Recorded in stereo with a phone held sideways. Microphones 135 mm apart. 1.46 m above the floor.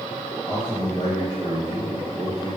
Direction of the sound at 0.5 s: 35° left (ahead or behind).